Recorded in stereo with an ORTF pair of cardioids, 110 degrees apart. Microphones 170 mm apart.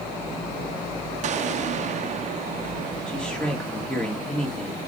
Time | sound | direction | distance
1.2 | an explosion | 45° right | 0.7 m
3.1 | a man speaking | 5° left | 2.5 m